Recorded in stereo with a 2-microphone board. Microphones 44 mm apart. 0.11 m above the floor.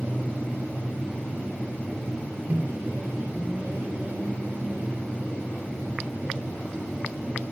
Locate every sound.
2.5 s a microwave: 40° right (ahead or behind), 2 m